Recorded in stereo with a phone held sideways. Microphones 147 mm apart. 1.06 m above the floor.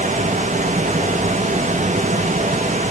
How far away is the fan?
About 1.2 m.